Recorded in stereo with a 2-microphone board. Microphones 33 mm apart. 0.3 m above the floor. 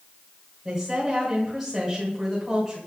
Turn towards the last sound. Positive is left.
turn(degrees=-5)  # may be behind; listen again after turning